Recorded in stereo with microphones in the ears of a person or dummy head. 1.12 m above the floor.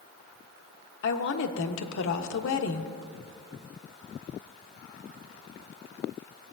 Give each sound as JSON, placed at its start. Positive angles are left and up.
{"t": 1.0, "sound": "a woman speaking", "side_deg": 65, "distance_m": 1.0}